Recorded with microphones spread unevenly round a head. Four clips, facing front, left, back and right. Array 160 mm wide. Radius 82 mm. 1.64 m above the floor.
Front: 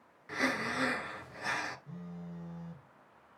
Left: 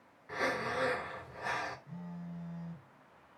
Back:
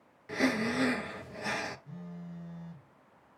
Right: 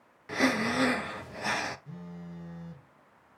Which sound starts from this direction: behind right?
Breathing, at 0.3 s.